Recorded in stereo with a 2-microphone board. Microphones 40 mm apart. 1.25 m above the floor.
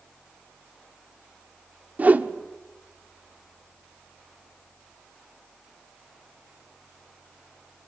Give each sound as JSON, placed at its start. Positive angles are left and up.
{"t": 2.0, "sound": "a whoosh", "side_deg": -40, "distance_m": 1.2}